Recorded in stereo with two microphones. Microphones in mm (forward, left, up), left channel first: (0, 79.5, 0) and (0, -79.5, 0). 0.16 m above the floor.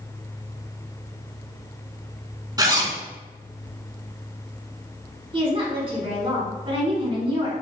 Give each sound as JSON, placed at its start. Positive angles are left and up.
{"t": 2.6, "sound": "a zipper", "side_deg": -25, "distance_m": 0.8}
{"t": 5.3, "sound": "a woman speaking", "side_deg": -35, "distance_m": 1.8}